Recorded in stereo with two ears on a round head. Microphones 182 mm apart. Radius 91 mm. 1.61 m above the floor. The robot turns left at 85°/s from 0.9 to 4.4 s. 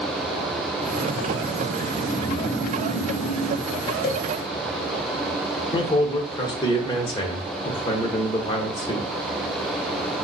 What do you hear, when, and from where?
1.8 s snoring: 155° right, 0.8 m; by 3.7 s 45° left, 0.8 m
4.0 s a cowbell: 45° left (ahead or behind), 0.8 m; by 4.2 s 60° left (ahead or behind), 0.8 m
5.7 s a man speaking: 20° left (ahead or behind), 1.3 m